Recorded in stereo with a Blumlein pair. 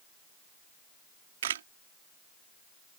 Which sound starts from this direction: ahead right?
A camera shutter, at 1.4 s.